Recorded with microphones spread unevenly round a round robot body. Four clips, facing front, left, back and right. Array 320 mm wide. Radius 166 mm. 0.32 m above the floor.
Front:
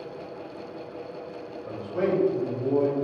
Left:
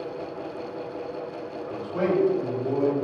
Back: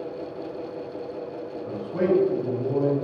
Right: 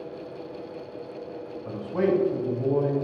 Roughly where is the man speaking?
Behind right.